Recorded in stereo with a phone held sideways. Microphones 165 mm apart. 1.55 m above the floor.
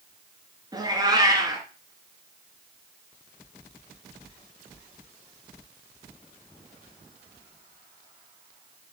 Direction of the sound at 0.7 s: 25° right (ahead or behind).